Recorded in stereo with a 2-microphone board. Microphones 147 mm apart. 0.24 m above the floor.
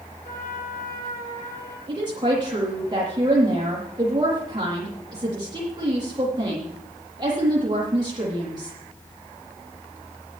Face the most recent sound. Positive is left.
turn(degrees=-30)  # may be behind; listen again after turning